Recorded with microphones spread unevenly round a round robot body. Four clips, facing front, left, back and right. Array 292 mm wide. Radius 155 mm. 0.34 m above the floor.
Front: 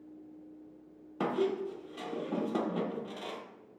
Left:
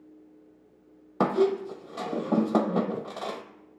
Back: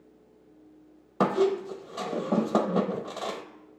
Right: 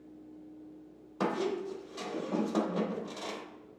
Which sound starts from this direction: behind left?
A squeak, at 1.2 s.